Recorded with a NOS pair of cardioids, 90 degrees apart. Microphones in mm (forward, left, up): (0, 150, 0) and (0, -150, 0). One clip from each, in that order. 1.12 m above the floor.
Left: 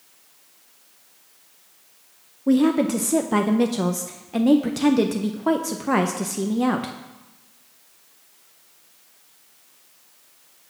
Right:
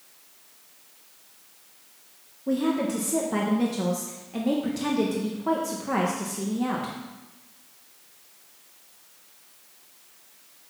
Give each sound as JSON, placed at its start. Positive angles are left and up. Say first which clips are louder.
{"t": 2.5, "sound": "a woman speaking", "louder": "left 6 dB", "azimuth_deg": 40, "distance_m": 0.6}